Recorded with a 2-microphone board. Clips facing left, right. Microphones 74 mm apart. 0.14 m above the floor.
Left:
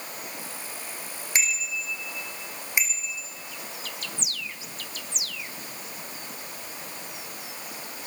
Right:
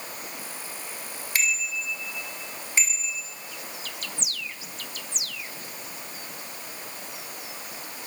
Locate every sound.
1.4 s a bicycle bell: 20° left (ahead or behind), 5 m; by 3.2 s 15° left (ahead or behind), 6.5 m